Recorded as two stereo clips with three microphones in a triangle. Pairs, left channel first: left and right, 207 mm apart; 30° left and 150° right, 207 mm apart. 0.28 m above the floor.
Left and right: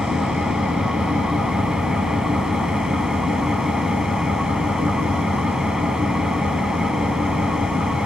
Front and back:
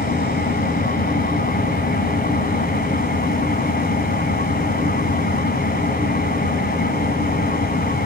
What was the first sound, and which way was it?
An engine running, 5° right.